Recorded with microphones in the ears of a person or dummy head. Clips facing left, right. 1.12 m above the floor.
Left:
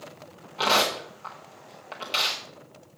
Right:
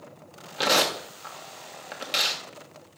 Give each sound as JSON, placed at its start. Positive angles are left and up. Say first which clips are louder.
{"t": 0.6, "sound": "tearing paper", "louder": "even", "side_deg": -15, "distance_m": 0.9}